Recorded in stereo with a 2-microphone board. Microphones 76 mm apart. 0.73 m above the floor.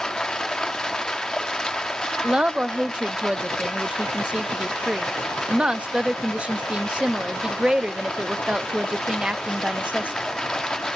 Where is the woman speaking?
15° right (ahead or behind), 0.5 m.